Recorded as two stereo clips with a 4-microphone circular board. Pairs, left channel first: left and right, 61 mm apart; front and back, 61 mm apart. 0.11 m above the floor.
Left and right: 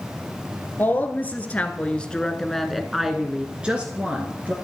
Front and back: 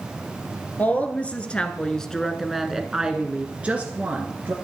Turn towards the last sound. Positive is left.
turn(degrees=-140)